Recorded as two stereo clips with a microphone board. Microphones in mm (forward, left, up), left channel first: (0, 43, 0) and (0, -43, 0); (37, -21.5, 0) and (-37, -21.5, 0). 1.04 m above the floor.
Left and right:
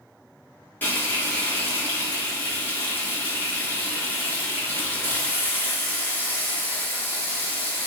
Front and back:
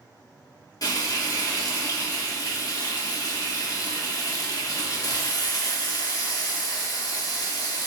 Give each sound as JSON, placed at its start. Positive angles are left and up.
{"t": 0.8, "sound": "frying", "azimuth_deg": 25, "distance_m": 1.2}